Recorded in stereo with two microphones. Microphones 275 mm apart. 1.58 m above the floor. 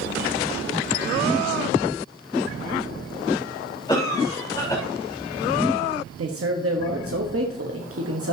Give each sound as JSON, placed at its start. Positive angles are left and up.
{"t": 3.9, "sound": "a cough", "side_deg": 15, "distance_m": 4.0}
{"t": 6.2, "sound": "a man speaking", "side_deg": -55, "distance_m": 1.2}